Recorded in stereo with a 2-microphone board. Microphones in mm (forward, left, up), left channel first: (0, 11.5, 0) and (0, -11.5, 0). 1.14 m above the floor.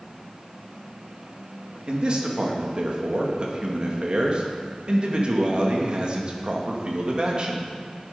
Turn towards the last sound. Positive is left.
turn(degrees=-45)  # may be behind; listen again after turning